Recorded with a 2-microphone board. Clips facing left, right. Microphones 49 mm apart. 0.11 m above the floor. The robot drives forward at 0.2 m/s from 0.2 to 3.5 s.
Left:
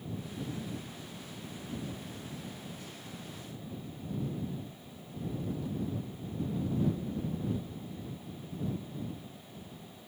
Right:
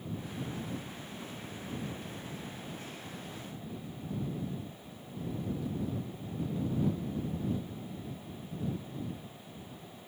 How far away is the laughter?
No laughter in this recording.